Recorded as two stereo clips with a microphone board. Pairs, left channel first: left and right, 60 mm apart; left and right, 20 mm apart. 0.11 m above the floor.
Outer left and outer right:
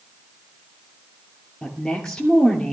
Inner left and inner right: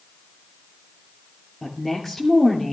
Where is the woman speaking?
10° left (ahead or behind), 2.5 m.